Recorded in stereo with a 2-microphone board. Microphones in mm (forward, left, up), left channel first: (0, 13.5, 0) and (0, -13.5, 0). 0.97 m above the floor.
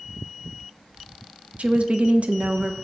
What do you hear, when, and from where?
1.6 s a woman speaking: 55° right (ahead or behind), 0.6 m